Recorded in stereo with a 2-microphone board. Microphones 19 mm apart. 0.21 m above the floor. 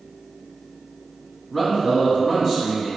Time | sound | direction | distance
1.5 | a man speaking | 20° left (ahead or behind) | 1.7 m